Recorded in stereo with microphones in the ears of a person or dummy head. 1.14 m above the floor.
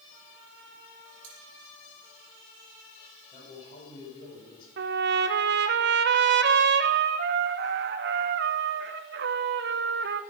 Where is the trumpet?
50° right (ahead or behind), 0.7 m.